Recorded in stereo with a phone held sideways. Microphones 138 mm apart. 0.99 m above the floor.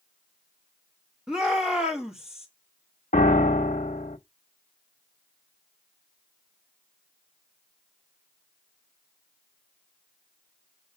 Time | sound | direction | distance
1.3 | a shout | 5° right (ahead or behind) | 1.7 m
3.1 | a piano | 75° left (ahead or behind) | 1.2 m